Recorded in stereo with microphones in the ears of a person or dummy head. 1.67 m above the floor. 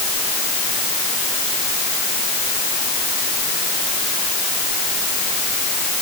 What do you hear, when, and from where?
Only background noise.